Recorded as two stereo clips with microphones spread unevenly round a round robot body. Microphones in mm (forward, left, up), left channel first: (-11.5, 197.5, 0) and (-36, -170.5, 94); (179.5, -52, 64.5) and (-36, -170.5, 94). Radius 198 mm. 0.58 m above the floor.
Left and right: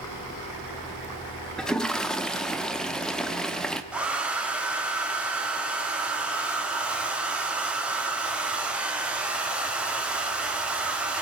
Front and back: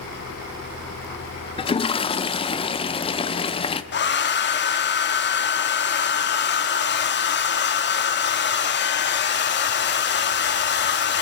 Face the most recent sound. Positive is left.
turn(degrees=5)